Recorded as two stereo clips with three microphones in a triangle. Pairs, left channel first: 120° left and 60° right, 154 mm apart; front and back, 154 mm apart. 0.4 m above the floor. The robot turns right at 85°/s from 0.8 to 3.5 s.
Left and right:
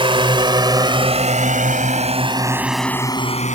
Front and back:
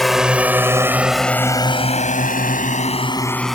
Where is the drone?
90° right; by 3.5 s 90° left.